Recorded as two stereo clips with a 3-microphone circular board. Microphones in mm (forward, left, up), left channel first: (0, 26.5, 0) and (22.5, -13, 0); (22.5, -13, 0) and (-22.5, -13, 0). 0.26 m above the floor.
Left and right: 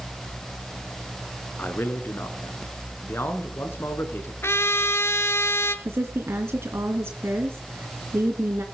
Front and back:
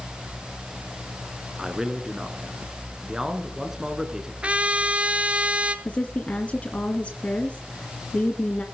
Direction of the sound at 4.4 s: 120° left.